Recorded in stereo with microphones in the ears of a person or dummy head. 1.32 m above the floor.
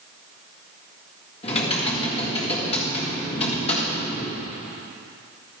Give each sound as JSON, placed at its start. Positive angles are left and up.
{"t": 1.4, "sound": "typing on a keyboard", "side_deg": 35, "distance_m": 1.8}